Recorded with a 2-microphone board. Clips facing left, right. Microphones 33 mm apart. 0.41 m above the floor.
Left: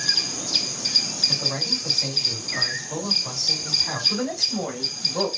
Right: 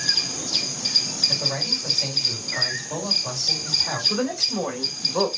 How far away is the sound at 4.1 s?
About 1.4 m.